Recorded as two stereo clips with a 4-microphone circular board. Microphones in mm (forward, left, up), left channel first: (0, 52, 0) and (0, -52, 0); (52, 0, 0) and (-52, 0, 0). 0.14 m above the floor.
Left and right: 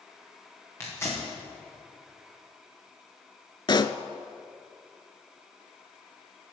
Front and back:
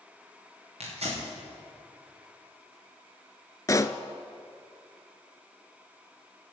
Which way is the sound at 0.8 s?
155° left.